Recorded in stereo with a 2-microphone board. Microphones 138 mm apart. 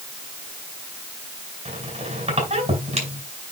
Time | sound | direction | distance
1.6 | a squeak | 55° right (ahead or behind) | 4.5 m